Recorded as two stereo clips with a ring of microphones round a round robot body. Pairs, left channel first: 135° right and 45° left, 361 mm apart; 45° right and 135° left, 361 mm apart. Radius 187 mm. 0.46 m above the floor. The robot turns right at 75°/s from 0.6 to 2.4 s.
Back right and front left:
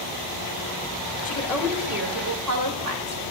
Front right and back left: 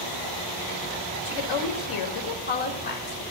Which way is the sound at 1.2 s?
70° right.